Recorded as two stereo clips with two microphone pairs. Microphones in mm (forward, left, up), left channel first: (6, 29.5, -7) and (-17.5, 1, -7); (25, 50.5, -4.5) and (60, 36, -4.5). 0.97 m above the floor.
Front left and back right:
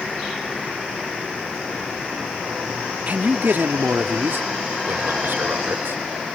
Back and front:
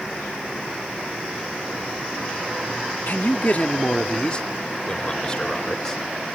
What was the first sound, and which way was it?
A man speaking, 170° right.